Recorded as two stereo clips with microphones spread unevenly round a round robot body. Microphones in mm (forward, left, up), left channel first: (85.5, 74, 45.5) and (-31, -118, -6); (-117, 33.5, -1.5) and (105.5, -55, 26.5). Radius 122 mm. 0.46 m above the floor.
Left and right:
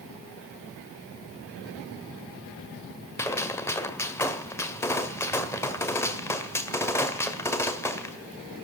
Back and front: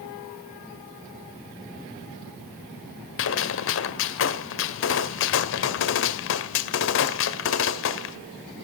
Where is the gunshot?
145° left, 1.7 m.